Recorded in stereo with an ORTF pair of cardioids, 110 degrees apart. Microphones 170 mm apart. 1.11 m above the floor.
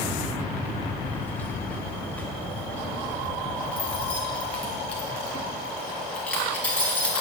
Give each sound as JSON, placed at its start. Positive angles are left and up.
{"t": 1.0, "sound": "keys jangling", "azimuth_deg": 10, "distance_m": 2.5}